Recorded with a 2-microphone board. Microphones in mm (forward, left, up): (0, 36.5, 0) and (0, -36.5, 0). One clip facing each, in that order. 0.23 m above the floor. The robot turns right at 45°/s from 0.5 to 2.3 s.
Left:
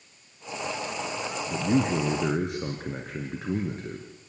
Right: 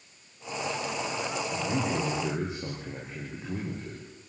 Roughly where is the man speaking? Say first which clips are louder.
Left 8 dB; ahead left.